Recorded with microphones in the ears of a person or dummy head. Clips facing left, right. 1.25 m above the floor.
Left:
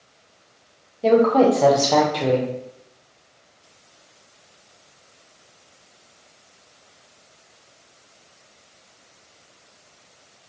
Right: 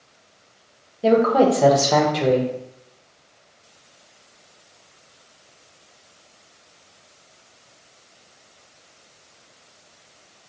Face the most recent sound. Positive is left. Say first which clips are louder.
# left 1 dB
turn(degrees=-5)  # may be behind; listen again after turning